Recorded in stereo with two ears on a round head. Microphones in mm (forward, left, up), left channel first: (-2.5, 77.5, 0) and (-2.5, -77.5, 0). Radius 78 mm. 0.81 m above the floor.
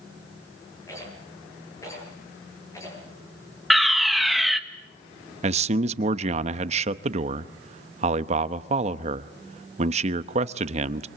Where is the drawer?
No drawer in this recording.